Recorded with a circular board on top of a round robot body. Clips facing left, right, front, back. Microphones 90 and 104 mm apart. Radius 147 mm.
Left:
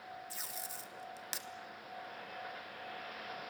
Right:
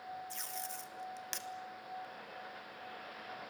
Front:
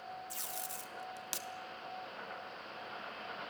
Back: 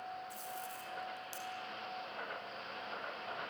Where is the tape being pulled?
5° left, 1.8 m.